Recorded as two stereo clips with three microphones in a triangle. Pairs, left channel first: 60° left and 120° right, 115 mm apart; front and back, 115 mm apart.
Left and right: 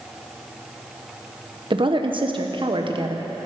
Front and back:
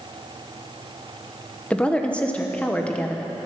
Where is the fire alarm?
I don't hear a fire alarm.